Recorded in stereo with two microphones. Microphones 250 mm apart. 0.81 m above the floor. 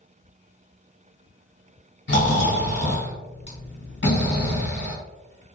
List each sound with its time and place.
2.1 s snoring: 50° left (ahead or behind), 1.4 m